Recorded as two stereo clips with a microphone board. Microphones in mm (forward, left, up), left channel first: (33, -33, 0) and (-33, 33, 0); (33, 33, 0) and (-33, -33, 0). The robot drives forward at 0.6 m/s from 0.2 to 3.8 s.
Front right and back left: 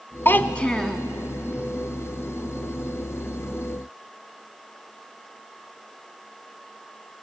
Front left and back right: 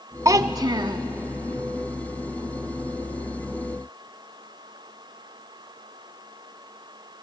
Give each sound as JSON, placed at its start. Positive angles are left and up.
{"t": 0.2, "sound": "a child speaking", "azimuth_deg": -100, "distance_m": 0.8}